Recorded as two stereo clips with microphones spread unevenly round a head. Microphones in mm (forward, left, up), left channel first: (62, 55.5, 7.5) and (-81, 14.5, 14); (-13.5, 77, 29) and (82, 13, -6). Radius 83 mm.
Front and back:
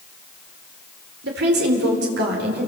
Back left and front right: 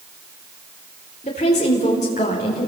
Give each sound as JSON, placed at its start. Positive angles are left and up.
{"t": 1.2, "sound": "a woman speaking", "azimuth_deg": -165, "distance_m": 4.0}